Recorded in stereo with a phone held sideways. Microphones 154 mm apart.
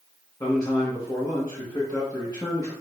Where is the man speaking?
25° left (ahead or behind), 0.9 m.